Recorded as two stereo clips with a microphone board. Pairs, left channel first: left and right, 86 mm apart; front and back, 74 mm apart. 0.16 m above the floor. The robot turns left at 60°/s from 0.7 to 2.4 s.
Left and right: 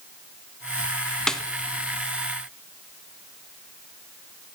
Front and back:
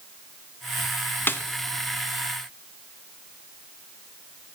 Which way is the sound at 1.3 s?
15° left.